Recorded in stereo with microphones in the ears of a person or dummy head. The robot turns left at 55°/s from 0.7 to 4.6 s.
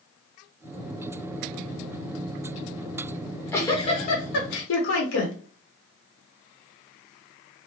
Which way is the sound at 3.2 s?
175° right.